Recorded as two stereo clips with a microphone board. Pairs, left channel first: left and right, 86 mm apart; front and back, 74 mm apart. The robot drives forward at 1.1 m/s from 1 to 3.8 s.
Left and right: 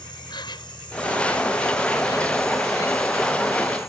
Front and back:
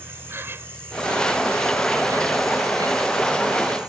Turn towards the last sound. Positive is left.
turn(degrees=150)